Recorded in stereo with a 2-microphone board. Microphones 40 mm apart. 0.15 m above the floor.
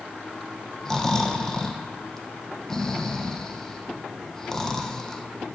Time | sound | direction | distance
0.8 | snoring | 15° left (ahead or behind) | 1.2 m